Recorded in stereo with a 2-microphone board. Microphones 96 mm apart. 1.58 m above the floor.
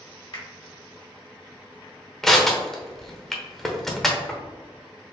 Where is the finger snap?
70° left (ahead or behind), 2.0 m.